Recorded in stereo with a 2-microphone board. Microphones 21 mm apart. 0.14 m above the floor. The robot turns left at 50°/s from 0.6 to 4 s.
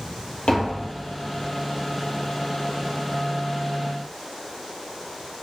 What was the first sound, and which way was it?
Tapping, 70° left (ahead or behind).